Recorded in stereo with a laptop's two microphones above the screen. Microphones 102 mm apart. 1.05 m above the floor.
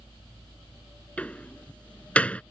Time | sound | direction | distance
0.0 | a fan | 55° right (ahead or behind) | ?
1.2 | a door slam | 15° left (ahead or behind) | ?